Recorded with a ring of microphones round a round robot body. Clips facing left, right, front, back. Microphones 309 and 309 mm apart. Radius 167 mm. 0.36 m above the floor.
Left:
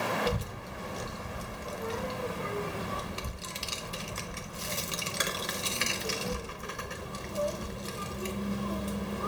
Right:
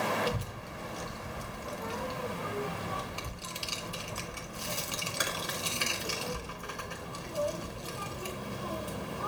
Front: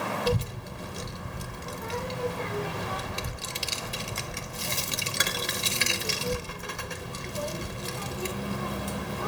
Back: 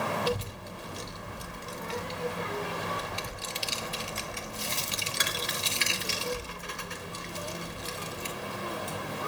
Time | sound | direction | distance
0.3 | a child speaking | 25° left | 0.6 m